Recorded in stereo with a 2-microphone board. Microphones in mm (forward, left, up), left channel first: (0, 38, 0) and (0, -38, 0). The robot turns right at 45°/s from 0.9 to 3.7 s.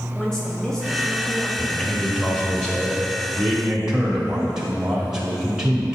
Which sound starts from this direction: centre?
A woman speaking, at 0.1 s.